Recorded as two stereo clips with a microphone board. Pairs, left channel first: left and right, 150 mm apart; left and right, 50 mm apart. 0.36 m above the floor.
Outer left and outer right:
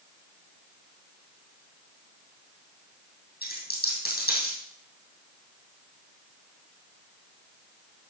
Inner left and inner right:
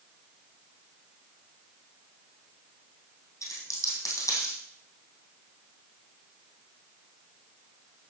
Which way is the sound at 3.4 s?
80° left.